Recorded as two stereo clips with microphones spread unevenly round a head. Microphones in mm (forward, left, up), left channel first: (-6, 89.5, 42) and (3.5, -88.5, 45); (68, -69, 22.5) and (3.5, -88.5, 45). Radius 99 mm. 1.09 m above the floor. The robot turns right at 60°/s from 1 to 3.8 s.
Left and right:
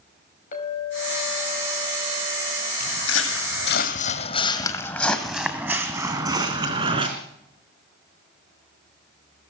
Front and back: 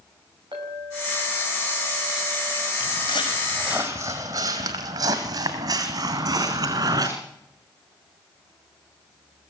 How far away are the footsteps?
About 3 m.